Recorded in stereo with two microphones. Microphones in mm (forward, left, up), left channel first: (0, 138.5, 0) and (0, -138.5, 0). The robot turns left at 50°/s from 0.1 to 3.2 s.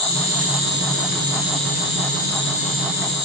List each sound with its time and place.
0.0 s an insect: 105° right, 7 m; by 3.2 s 100° left, 7 m